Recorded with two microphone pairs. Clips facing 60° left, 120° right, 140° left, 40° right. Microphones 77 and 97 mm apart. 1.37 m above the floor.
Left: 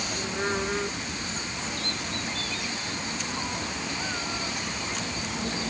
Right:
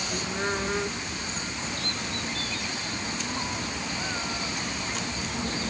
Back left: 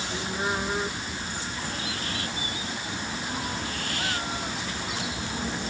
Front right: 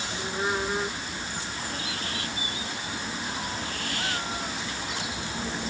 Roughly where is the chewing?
I don't hear chewing.